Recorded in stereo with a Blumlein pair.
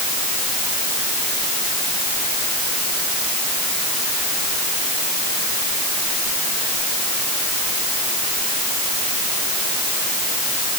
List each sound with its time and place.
Only background noise.